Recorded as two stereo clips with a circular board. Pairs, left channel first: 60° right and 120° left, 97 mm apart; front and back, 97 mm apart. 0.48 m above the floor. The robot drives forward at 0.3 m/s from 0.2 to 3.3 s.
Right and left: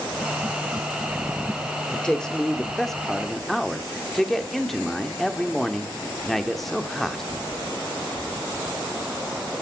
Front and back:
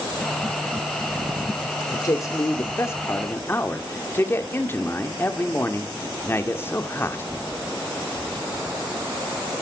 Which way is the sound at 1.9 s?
15° left.